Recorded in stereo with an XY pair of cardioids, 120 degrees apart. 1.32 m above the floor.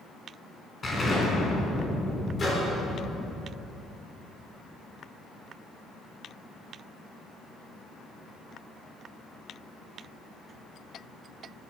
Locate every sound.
0.8 s an explosion: 25° left, 4 m
2.4 s a microwave: 30° left, 4 m